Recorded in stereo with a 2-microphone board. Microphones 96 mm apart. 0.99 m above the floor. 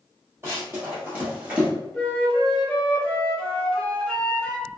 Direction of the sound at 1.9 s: 15° left (ahead or behind).